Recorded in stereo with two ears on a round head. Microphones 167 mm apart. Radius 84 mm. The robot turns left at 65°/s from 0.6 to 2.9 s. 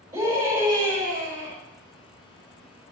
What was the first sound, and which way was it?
A scream, 20° right.